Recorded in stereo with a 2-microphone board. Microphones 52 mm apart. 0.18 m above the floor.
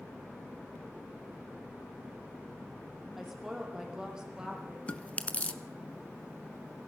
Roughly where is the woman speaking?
Centre.